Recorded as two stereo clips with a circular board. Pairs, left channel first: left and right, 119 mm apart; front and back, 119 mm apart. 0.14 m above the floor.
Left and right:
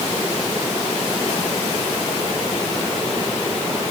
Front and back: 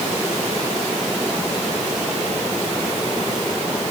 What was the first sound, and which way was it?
Only background noise.